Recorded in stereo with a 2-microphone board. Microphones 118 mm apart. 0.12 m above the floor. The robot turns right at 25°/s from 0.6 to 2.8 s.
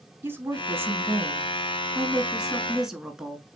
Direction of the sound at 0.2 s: 20° right (ahead or behind).